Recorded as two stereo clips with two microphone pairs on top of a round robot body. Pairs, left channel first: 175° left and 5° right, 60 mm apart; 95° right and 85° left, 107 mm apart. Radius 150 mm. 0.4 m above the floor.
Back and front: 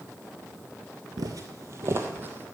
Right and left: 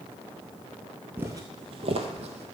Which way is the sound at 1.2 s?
10° left.